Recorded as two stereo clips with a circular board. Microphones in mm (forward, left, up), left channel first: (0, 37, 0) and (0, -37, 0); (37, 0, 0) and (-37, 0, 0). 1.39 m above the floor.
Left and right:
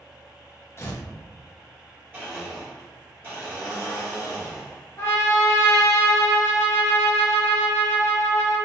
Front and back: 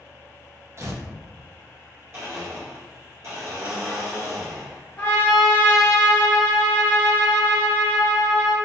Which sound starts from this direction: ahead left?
A trumpet, at 5.0 s.